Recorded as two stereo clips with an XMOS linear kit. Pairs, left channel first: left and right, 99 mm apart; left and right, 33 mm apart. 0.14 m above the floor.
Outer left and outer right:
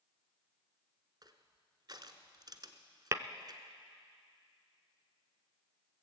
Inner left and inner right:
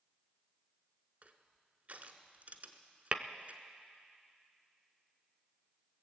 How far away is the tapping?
About 0.7 m.